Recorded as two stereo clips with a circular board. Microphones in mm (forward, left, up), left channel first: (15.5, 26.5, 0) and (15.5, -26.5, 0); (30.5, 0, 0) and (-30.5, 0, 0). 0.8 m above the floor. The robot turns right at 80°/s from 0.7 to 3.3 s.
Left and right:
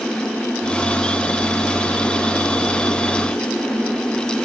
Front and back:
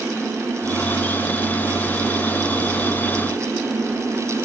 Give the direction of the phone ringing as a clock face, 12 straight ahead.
No phone ringing in this recording.